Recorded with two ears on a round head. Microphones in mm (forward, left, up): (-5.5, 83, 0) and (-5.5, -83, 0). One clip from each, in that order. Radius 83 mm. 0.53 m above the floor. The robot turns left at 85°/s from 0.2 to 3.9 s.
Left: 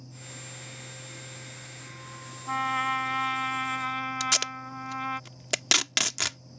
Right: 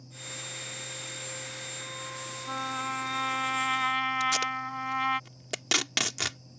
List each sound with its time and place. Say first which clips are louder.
2.5 s a trumpet: left 6 dB; 80° left; by 5.2 s 40° right
4.2 s tape being pulled: even; 30° left (ahead or behind)